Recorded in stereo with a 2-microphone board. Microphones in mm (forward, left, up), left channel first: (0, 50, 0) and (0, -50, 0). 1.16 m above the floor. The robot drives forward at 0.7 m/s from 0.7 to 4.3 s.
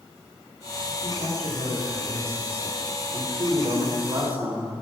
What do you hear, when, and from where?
1.0 s a man speaking: 70° right (ahead or behind), 4 m